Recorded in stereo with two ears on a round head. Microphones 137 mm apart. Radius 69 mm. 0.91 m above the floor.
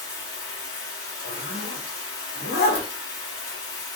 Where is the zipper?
75° left (ahead or behind), 1.0 m.